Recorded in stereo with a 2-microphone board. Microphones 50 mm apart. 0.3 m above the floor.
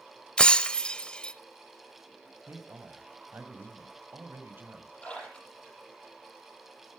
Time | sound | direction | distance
0.4 | breaking glass | 20° left (ahead or behind) | 0.6 m
2.5 | a man speaking | 50° right (ahead or behind) | 1.7 m
5.0 | a splash | 25° left (ahead or behind) | 8.5 m